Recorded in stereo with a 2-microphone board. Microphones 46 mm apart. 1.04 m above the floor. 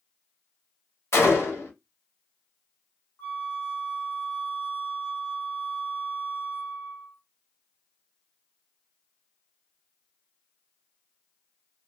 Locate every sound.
1.1 s a gunshot: 75° left (ahead or behind), 1.5 m
3.2 s a flute: 60° left (ahead or behind), 1.4 m